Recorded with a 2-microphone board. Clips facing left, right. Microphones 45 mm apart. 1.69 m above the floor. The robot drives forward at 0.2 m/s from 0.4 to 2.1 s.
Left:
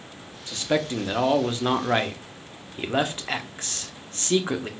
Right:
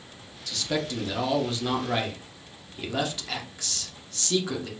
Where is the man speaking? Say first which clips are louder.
Left 4 dB; 30° left (ahead or behind), 0.5 m; by 4.7 s 35° left (ahead or behind), 0.5 m.